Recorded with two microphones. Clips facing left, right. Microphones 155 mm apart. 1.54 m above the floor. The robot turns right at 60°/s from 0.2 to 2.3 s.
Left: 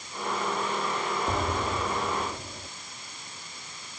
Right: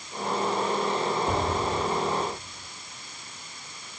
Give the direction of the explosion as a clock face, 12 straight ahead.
12 o'clock.